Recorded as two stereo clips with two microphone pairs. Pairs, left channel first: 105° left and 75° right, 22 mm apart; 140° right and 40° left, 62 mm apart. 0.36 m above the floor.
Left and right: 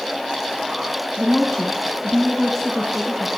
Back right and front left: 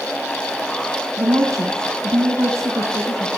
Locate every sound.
1.2 s a woman speaking: 40° left, 3 m